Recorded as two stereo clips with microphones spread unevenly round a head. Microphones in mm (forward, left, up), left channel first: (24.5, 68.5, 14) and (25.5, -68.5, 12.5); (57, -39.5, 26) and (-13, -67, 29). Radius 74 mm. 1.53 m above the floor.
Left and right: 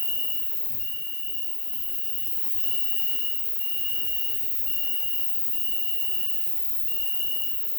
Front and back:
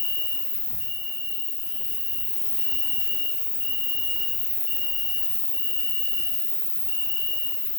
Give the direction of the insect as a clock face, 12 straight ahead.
8 o'clock.